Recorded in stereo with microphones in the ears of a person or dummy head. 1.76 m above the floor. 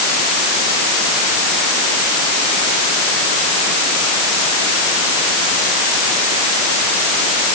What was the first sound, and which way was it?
Only background noise.